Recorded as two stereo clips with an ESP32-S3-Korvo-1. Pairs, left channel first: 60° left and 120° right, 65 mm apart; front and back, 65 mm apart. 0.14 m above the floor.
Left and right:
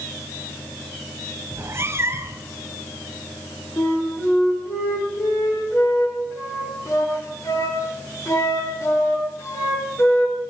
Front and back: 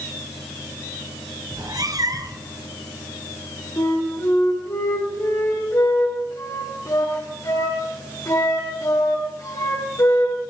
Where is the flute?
25° left, 6.5 m.